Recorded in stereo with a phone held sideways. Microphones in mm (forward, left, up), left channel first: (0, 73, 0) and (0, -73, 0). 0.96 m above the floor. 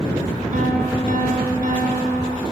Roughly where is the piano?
Right.